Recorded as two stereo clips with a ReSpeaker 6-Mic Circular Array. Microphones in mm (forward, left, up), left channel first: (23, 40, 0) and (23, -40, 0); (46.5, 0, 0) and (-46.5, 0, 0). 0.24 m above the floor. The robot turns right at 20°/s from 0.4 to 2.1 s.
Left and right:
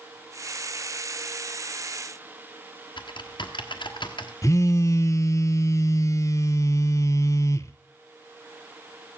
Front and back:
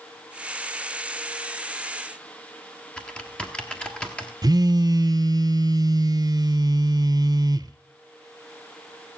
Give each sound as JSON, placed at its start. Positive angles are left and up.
{"t": 3.0, "sound": "typing on a keyboard", "azimuth_deg": 80, "distance_m": 1.3}
{"t": 4.4, "sound": "a phone buzzing", "azimuth_deg": 140, "distance_m": 0.6}